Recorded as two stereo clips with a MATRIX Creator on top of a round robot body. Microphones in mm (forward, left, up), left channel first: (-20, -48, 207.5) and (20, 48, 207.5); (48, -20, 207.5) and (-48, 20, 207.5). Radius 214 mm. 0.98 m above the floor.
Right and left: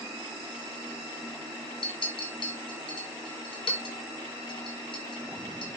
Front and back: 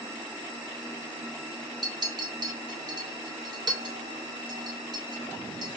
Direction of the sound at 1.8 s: 150° right.